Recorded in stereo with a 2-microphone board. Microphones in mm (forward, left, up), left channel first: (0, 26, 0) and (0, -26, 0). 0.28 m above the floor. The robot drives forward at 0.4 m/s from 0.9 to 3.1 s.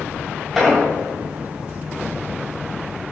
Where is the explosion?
Centre (ahead or behind), 1.6 m.